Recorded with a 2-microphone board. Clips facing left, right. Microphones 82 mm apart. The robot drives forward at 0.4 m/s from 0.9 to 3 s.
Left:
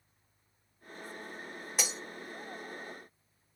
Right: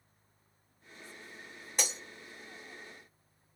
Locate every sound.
1.8 s breaking glass: 5° left (ahead or behind), 0.7 m